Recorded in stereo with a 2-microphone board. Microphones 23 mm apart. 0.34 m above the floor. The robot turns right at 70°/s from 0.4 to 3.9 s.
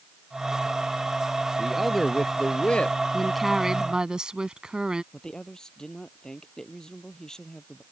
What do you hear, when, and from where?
1.6 s a man speaking: 20° right; by 3.0 s 75° left
3.1 s a woman speaking: 170° left; by 5.0 s 135° right
5.1 s a man speaking: 30° left (ahead or behind)